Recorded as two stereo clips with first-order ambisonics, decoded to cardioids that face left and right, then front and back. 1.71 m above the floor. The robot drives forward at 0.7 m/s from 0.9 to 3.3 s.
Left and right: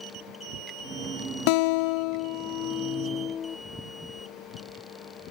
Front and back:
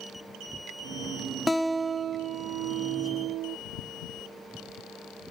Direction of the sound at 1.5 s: 85° left.